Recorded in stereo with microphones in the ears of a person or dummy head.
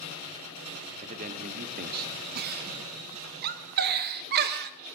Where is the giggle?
55° right (ahead or behind), 1.3 m.